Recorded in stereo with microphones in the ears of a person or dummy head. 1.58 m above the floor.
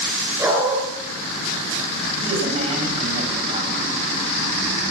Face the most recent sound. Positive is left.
turn(degrees=-35)  # may be behind; listen again after turning